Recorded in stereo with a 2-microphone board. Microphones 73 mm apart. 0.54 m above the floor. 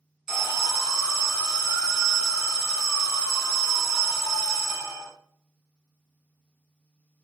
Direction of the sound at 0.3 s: 10° right (ahead or behind).